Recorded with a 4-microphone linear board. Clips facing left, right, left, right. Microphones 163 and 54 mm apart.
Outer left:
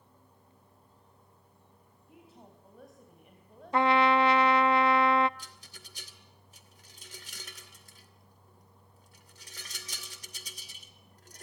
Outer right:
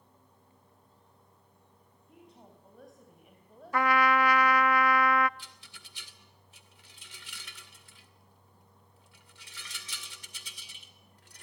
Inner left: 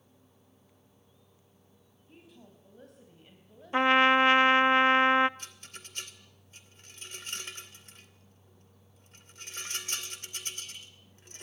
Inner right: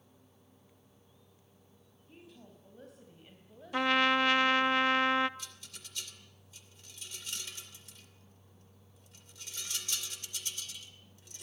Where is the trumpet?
25° left (ahead or behind), 0.5 m.